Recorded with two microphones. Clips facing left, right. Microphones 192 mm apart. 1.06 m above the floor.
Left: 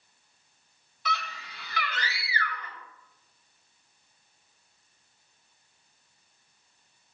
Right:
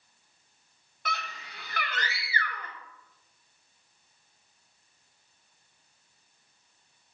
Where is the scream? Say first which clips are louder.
Left 3 dB; 55° right (ahead or behind), 3 m.